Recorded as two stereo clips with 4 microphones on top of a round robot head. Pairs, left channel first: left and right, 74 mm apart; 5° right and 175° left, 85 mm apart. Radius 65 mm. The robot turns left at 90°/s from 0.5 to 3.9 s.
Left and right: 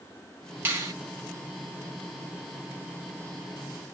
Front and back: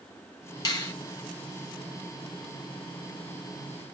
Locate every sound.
0.7 s a finger snap: 30° right, 1.6 m; by 0.9 s 55° right, 1.6 m